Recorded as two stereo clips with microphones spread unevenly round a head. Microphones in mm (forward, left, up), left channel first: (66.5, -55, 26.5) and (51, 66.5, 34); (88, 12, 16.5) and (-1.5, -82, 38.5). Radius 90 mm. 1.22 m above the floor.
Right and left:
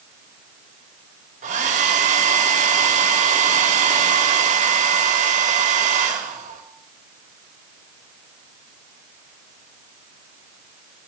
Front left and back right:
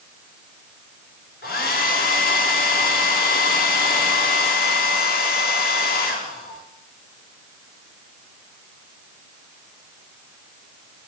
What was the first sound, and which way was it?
A hair dryer, 80° left.